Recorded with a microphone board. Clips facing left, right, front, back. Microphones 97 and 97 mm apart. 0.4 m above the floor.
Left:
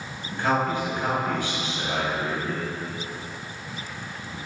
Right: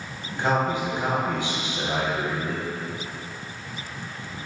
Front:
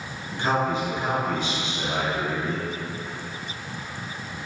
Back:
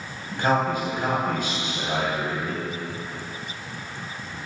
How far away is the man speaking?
About 1.9 m.